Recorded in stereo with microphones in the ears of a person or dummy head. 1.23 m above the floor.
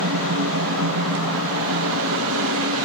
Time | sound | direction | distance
0.0 | a fan | 70° right (ahead or behind) | 1.3 m